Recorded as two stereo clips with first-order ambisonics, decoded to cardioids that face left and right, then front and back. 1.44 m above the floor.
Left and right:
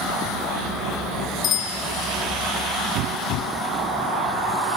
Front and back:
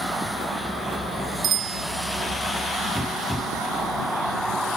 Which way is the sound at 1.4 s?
125° left.